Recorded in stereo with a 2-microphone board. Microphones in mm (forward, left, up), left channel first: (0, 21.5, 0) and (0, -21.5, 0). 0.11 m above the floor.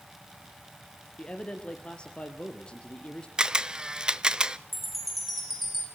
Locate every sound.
1.2 s a man speaking: 25° left (ahead or behind), 1.9 m
3.4 s a camera shutter: 20° right (ahead or behind), 0.5 m
4.7 s a chime: centre (ahead or behind), 3 m